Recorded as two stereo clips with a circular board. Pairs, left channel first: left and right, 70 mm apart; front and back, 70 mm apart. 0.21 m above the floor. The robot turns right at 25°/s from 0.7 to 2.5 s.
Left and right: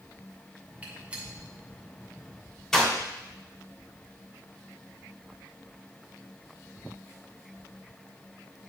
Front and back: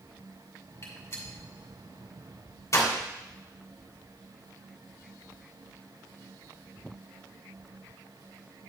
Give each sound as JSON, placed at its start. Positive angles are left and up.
{"t": 0.8, "sound": "a gunshot", "azimuth_deg": -30, "distance_m": 2.0}